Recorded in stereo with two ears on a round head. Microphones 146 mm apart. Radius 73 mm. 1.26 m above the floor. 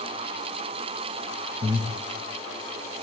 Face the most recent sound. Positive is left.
turn(degrees=-35)  # may be behind; listen again after turning